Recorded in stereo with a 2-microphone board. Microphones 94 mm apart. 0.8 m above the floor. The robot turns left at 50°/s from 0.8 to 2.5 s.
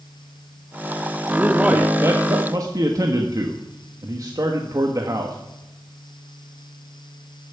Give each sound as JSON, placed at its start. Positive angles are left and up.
{"t": 1.4, "sound": "a man speaking", "azimuth_deg": -5, "distance_m": 1.4}